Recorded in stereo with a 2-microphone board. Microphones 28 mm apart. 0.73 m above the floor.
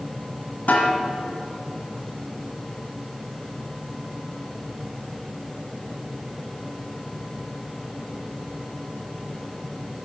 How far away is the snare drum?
About 1.3 m.